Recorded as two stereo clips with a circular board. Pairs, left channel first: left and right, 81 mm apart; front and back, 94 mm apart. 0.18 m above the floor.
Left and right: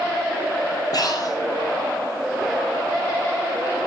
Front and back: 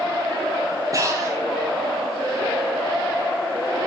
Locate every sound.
0.9 s breathing: 125° left, 4.5 m